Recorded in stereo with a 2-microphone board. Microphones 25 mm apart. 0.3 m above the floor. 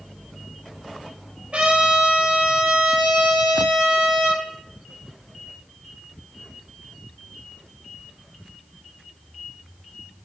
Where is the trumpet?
40° right (ahead or behind), 6 m.